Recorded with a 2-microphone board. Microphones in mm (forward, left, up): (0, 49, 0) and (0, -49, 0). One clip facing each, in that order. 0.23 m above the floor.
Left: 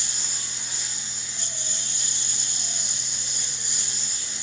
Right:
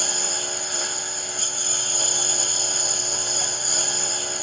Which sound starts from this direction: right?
A lawn mower, at 0.0 s.